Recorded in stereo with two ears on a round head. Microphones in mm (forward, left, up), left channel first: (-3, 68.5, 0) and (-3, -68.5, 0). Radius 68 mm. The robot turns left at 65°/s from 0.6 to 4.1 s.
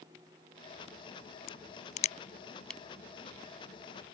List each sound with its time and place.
1.5 s a crack: 70° left (ahead or behind); by 2.8 s centre (ahead or behind)